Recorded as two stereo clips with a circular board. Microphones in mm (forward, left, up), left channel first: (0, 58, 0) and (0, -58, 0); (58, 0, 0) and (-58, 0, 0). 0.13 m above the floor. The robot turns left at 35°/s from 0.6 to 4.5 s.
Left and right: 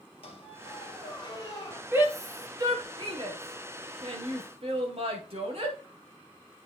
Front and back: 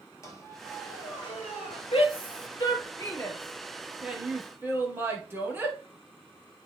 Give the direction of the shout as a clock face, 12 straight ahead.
1 o'clock.